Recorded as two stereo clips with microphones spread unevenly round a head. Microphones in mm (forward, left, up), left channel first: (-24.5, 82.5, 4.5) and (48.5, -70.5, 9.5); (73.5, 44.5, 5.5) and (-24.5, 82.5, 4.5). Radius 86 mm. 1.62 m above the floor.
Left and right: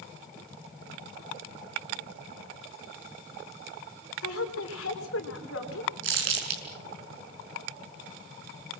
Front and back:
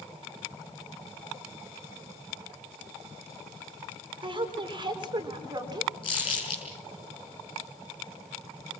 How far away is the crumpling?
About 6 m.